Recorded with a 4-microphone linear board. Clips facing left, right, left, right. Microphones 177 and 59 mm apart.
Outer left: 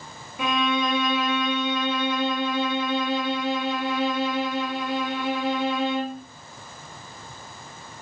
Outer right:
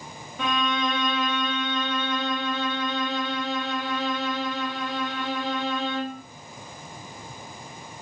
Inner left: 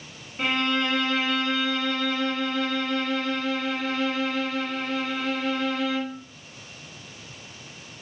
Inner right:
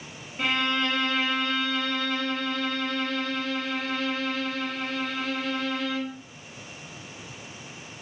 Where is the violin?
10° left (ahead or behind), 0.8 m.